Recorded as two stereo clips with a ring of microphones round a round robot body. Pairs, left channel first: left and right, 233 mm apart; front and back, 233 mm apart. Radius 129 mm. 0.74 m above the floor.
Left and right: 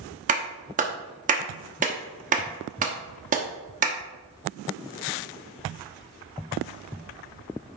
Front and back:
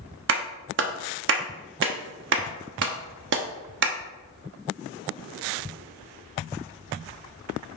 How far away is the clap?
About 0.9 m.